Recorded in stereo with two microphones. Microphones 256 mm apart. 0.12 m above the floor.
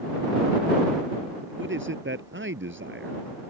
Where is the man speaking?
50° right (ahead or behind).